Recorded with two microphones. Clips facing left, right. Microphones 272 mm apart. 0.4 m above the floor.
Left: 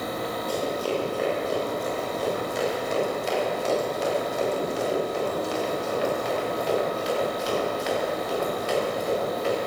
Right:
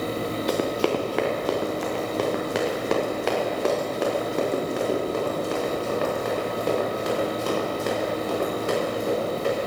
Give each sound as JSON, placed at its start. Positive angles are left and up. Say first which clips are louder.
{"t": 0.5, "sound": "running footsteps", "louder": "right 4 dB", "side_deg": -80, "distance_m": 2.5}